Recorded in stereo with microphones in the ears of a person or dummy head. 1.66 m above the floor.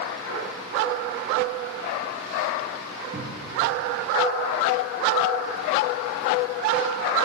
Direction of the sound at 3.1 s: 40° right (ahead or behind).